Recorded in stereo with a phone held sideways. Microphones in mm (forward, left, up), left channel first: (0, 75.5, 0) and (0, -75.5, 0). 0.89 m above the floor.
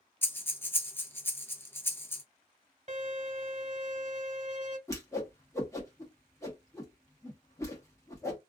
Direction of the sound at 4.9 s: 20° left (ahead or behind).